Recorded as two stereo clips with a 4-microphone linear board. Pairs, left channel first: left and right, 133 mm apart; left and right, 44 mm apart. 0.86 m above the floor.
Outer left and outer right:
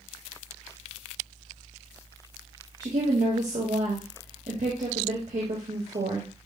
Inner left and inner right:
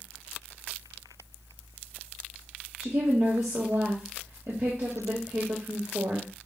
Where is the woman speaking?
70° right (ahead or behind), 1.2 m.